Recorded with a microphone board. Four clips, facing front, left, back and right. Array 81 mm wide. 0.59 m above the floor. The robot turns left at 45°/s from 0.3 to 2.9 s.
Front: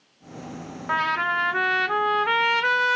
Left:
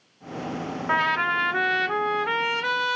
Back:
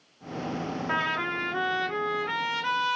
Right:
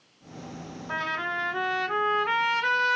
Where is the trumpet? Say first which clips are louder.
Left 7 dB, front 7 dB; 65° left, 1.0 m; by 3.0 s 25° right, 1.0 m.